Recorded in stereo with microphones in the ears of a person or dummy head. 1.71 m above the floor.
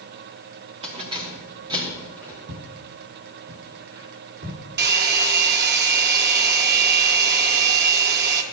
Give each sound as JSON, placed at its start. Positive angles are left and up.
{"t": 0.8, "sound": "keys jangling", "side_deg": -35, "distance_m": 2.5}
{"t": 2.5, "sound": "footsteps", "side_deg": -65, "distance_m": 6.0}
{"t": 4.8, "sound": "a hair dryer", "side_deg": -60, "distance_m": 1.5}